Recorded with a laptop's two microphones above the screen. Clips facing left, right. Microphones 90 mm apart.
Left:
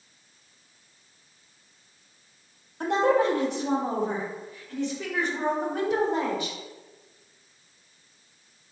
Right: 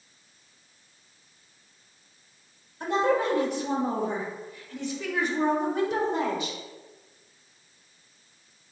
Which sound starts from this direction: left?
A woman speaking, at 2.8 s.